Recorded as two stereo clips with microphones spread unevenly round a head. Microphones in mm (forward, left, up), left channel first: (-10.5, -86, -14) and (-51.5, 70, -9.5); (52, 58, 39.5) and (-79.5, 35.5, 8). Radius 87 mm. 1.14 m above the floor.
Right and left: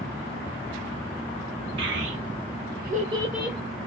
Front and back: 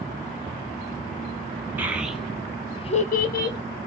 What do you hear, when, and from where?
1.8 s a child speaking: 115° left, 1.0 m; by 3.6 s 10° left, 0.7 m